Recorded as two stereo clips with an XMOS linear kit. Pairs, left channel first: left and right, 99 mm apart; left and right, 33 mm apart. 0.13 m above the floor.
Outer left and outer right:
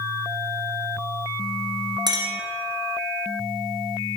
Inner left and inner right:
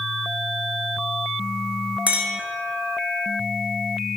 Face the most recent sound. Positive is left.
turn(degrees=-50)  # may be behind; listen again after turning